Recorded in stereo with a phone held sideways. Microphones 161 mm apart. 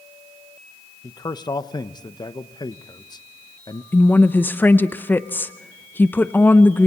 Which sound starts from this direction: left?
A man speaking, at 1.0 s.